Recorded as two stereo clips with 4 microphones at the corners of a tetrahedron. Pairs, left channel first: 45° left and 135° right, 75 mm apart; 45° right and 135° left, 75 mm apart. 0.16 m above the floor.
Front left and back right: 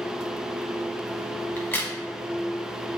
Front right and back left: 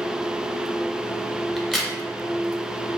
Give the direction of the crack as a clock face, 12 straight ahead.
11 o'clock.